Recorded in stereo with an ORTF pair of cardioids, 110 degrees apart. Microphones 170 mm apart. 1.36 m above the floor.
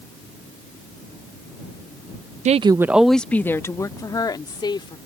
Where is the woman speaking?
45° right; by 5.0 s 25° left.